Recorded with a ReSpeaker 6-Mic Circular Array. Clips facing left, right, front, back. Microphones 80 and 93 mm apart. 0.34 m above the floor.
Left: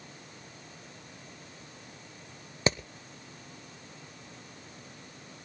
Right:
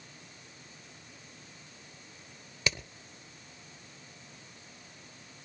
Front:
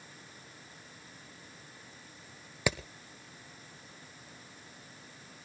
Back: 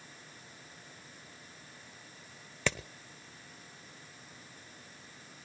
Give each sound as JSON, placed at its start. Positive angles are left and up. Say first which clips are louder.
{"t": 2.7, "sound": "hammering", "louder": "left 6 dB, front 2 dB", "azimuth_deg": 75, "distance_m": 0.9}